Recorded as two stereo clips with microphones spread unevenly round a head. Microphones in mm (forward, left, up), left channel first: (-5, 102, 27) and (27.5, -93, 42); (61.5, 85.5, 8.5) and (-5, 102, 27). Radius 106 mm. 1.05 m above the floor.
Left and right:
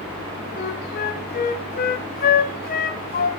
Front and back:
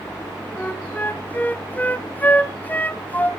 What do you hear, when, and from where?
0.6 s a flute: 60° left, 1.3 m